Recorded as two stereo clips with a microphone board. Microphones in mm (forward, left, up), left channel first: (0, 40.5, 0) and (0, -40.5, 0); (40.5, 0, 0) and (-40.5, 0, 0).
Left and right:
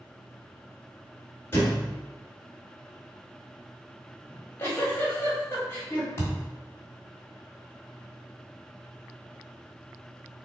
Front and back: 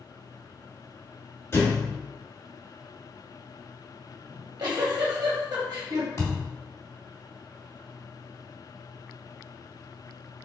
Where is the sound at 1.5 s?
40° left, 1.7 m.